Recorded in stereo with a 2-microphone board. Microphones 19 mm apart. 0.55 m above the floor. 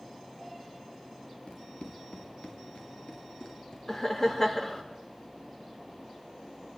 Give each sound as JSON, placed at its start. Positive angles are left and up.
{"t": 1.5, "sound": "running footsteps", "side_deg": 80, "distance_m": 3.0}
{"t": 3.9, "sound": "laughter", "side_deg": 20, "distance_m": 1.4}